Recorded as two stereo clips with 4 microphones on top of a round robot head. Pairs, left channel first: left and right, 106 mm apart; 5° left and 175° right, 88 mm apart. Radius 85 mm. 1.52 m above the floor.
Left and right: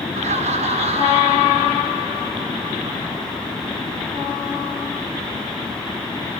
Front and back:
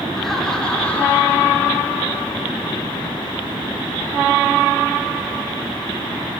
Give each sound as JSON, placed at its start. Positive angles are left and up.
{"t": 0.1, "sound": "laughter", "azimuth_deg": -85, "distance_m": 4.5}